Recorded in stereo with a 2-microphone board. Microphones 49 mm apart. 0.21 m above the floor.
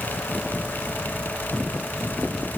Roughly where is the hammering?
No hammering in this recording.